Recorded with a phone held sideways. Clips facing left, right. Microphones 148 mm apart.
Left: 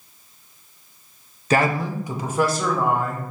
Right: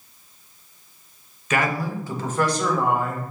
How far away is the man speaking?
About 0.6 m.